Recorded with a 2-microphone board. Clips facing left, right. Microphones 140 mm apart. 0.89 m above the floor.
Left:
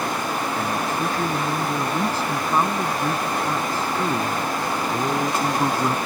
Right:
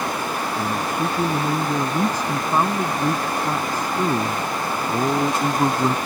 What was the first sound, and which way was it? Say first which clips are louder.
A man speaking: right 1 dB; 15° right (ahead or behind).